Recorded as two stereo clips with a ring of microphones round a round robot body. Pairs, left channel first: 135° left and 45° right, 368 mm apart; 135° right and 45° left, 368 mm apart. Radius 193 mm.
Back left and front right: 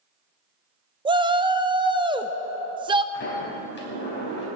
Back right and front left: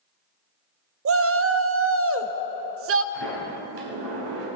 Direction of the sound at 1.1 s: 25° left.